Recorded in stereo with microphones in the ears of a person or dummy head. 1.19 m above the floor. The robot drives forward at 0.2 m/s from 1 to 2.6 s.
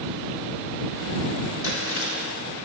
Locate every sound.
1.6 s chewing: 75° left (ahead or behind), 1.3 m; by 2.1 s 70° left (ahead or behind), 1.4 m